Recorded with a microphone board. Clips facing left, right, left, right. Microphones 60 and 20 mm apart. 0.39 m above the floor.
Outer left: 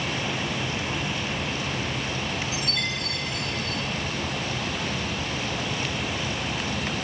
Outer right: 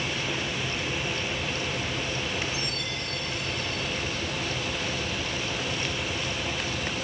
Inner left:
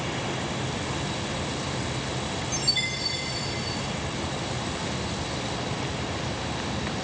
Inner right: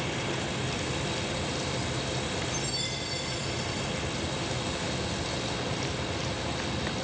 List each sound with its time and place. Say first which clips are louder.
0.0 s running water: outer left 2 dB, inner left 2 dB; 55° left (ahead or behind), 2.0 m
2.5 s a chime: outer left 3 dB, inner left 6 dB; 80° left, 4 m